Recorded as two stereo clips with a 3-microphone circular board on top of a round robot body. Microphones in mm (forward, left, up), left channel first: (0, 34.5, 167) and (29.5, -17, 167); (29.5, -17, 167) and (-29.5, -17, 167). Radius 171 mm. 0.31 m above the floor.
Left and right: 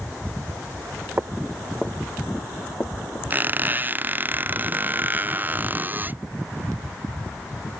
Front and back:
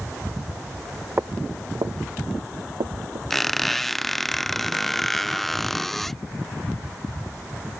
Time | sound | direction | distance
1.2 | footsteps | 125° right | ?
3.3 | a squeak | 85° right | ?